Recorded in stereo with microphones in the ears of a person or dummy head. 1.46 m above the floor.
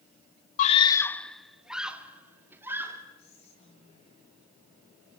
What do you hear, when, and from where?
0.6 s a scream: 45° left (ahead or behind), 0.7 m; by 3.0 s 15° right (ahead or behind), 3.5 m
3.2 s whispering: 35° left (ahead or behind), 8.5 m